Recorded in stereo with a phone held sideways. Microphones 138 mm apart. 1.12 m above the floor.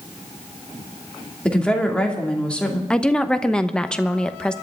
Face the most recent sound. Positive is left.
turn(degrees=5)  # may be behind; listen again after turning